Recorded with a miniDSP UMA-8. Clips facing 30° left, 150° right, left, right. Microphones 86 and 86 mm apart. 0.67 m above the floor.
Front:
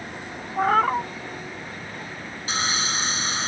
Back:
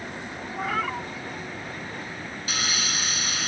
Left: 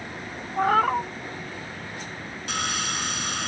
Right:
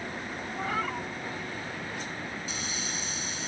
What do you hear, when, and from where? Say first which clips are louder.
0.6 s a cat meowing: front 9 dB, left 12 dB; 70° left
2.5 s sawing: front 4 dB, left 7 dB; 85° left